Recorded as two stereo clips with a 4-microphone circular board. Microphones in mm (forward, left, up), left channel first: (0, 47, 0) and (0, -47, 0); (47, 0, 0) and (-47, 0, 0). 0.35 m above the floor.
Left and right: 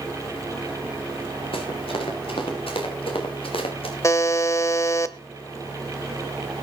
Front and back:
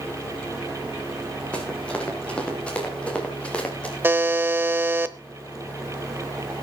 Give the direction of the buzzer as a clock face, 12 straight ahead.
8 o'clock.